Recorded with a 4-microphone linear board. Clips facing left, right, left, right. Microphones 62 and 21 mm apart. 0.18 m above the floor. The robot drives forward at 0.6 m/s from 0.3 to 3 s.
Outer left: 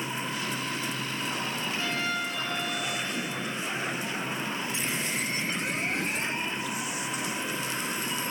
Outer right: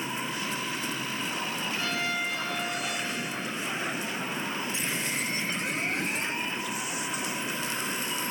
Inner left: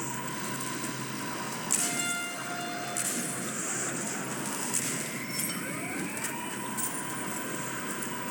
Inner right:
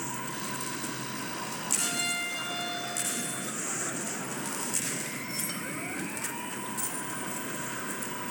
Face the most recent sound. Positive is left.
turn(degrees=-60)  # may be behind; listen again after turning